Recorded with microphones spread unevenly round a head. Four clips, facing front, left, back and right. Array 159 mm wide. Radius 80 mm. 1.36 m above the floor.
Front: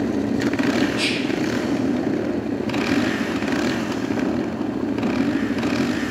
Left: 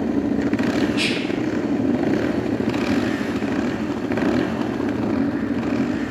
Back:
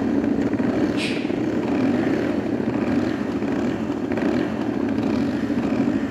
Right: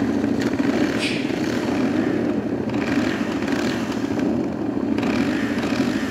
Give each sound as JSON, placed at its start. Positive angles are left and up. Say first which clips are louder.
{"t": 0.9, "sound": "whispering", "louder": "even, even", "azimuth_deg": 80, "distance_m": 1.9}